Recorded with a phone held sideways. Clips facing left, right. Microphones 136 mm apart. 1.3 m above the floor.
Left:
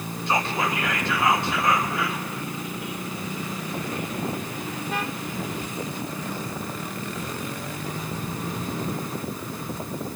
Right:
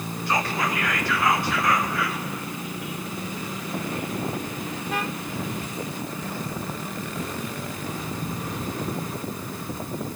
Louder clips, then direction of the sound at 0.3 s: Left 1 dB; 25° left (ahead or behind).